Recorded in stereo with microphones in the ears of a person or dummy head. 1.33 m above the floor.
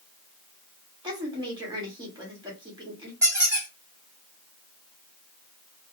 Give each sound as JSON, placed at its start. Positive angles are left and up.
{"t": 1.0, "sound": "a woman speaking", "side_deg": -20, "distance_m": 1.5}
{"t": 3.2, "sound": "a squeak", "side_deg": -10, "distance_m": 1.6}